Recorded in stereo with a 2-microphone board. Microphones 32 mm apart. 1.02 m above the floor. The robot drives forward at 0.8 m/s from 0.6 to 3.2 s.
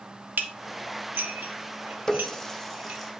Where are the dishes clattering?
70° right (ahead or behind), 1.4 m; by 3.0 s 40° right (ahead or behind), 2.0 m.